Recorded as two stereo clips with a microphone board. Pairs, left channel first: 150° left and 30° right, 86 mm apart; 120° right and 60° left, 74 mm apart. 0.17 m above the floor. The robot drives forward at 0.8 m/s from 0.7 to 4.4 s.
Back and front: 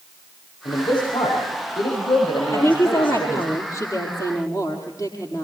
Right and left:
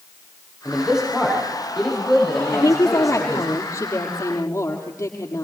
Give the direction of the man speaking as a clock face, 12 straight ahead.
7 o'clock.